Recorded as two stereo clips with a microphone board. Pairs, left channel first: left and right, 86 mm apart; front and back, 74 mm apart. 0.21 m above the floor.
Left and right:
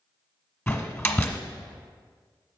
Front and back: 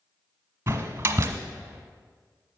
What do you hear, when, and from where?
0.7 s a door slam: 150° left, 1.2 m